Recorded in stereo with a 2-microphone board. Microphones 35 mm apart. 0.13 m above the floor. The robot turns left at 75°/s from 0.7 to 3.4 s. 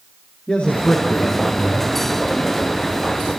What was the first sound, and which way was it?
A man speaking, 150° left.